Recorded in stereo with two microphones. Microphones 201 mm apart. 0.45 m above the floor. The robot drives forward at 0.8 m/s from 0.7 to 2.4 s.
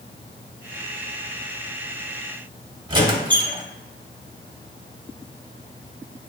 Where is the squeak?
20° right (ahead or behind), 0.8 m.